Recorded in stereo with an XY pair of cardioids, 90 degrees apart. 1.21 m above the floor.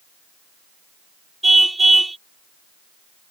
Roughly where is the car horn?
Ahead.